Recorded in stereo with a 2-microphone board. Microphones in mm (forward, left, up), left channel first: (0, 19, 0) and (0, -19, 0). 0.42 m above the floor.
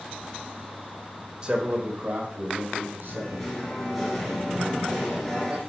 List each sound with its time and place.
1.4 s a man speaking: 25° right (ahead or behind), 1.3 m; by 3.6 s 70° right (ahead or behind), 3 m
3.0 s singing: 10° left (ahead or behind), 2.5 m